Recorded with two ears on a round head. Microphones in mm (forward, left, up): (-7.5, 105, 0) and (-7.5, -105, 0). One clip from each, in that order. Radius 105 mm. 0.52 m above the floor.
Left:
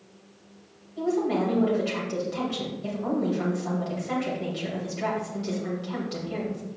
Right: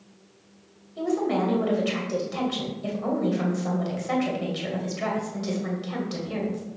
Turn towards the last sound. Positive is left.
turn(degrees=-30)  # may be behind; listen again after turning